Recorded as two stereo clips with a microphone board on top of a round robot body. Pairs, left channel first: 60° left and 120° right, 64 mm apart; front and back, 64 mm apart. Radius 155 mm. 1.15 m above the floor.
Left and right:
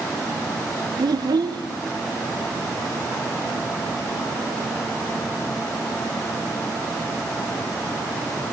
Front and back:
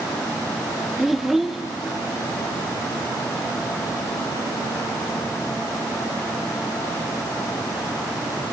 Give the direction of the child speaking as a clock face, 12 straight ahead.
3 o'clock.